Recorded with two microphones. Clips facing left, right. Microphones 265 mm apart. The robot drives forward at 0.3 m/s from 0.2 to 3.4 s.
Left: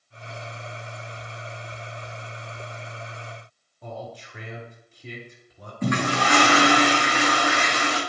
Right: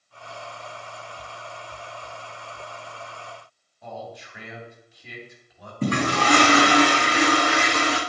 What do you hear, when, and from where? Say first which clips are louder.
3.8 s a man speaking: left 1 dB; 35° left (ahead or behind), 2.5 m
5.8 s a toilet flushing: right 1 dB; 35° right (ahead or behind), 2.5 m